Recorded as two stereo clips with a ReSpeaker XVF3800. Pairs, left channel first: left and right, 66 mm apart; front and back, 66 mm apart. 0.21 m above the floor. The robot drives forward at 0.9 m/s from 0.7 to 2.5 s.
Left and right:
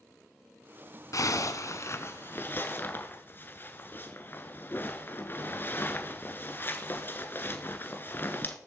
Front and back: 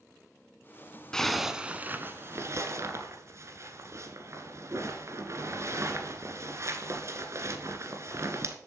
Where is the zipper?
80° left, 1.0 m; by 8.6 s 145° left, 1.4 m.